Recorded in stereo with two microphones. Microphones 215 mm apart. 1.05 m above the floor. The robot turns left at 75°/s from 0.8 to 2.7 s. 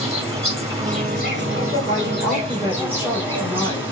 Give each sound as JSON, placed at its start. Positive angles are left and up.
{"t": 0.0, "sound": "an insect", "azimuth_deg": -25, "distance_m": 4.5}
{"t": 1.9, "sound": "a woman speaking", "azimuth_deg": -140, "distance_m": 4.0}